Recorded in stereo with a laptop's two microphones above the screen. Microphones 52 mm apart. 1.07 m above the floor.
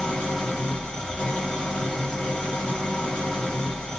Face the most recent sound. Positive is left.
turn(degrees=15)  # may be behind; listen again after turning